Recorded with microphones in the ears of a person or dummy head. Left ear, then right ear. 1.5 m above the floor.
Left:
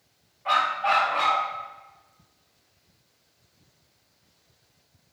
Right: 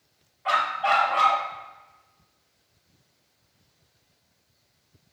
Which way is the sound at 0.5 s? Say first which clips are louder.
Even; 25° right (ahead or behind).